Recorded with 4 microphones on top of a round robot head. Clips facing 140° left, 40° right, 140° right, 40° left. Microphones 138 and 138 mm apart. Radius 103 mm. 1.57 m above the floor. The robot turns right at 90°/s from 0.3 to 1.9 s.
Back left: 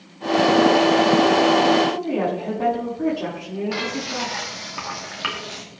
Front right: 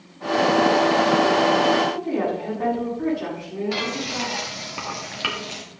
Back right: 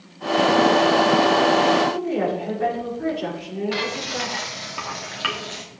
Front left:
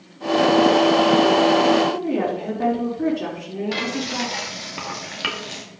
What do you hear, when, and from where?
1.9 s a woman speaking: 70° left, 5 m
3.7 s frying: 15° left, 1.1 m